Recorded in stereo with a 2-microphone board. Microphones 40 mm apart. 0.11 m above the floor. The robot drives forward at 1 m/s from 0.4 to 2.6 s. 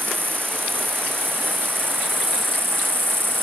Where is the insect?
60° right (ahead or behind); by 3.4 s 70° right (ahead or behind).